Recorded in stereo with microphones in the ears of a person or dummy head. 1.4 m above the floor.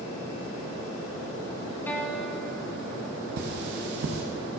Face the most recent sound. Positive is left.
turn(degrees=-55)  # may be behind; listen again after turning